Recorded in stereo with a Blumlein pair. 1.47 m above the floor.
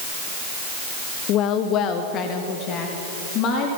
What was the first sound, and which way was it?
A woman speaking, 35° left.